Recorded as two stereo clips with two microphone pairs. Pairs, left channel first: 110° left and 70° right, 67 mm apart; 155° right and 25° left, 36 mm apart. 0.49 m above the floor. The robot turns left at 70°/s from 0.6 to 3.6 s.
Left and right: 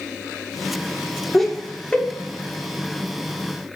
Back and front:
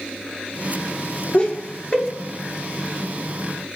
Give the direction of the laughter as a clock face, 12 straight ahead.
5 o'clock.